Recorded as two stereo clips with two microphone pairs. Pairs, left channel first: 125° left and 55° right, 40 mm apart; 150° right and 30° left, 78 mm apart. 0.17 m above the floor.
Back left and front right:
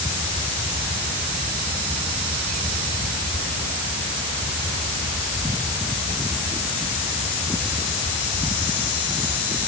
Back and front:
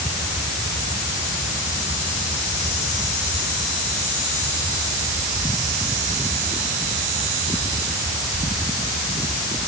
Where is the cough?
I don't hear a cough.